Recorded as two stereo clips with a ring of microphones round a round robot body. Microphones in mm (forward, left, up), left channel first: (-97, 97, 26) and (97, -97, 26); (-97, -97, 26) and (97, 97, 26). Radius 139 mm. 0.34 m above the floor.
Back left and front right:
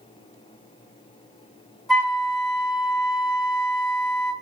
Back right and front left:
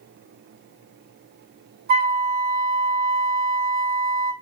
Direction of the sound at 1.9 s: 45° left.